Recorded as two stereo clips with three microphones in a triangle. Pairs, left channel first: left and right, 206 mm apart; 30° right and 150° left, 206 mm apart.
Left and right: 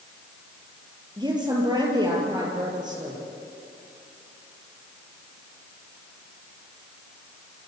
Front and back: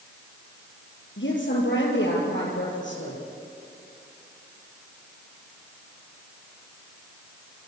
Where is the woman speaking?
20° right, 6 m.